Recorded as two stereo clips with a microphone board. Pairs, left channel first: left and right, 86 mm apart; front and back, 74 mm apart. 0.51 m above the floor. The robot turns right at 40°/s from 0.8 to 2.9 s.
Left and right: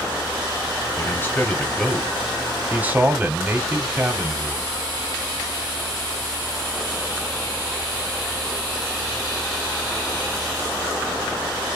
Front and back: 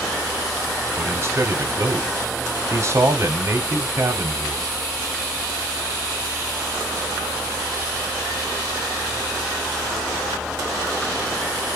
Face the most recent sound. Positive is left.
turn(degrees=-150)